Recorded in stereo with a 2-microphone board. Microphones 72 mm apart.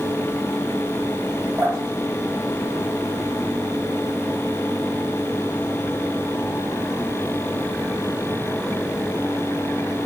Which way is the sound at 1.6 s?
35° right (ahead or behind).